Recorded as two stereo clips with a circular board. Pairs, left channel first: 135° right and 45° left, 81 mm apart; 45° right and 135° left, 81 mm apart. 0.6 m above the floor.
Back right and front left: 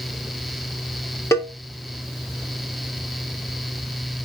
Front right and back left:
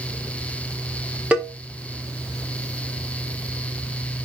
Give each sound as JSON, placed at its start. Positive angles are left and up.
{"t": 1.3, "sound": "a cowbell", "azimuth_deg": -160, "distance_m": 1.5}